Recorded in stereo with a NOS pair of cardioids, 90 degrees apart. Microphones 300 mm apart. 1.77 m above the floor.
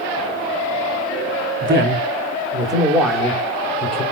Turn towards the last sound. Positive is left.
turn(degrees=20)